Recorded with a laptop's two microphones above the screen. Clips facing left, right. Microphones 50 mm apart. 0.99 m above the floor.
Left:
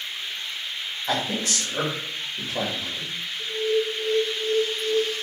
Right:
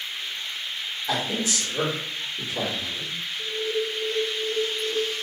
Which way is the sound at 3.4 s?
10° right (ahead or behind).